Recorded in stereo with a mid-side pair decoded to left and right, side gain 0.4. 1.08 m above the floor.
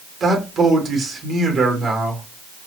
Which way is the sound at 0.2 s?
55° right.